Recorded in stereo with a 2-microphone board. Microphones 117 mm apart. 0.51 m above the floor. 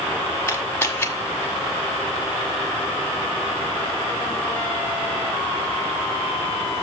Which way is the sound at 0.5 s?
20° left (ahead or behind).